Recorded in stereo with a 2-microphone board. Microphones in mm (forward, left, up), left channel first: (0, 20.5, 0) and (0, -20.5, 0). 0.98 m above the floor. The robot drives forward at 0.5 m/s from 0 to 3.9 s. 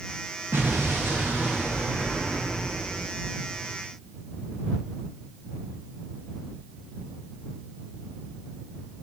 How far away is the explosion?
About 0.9 m.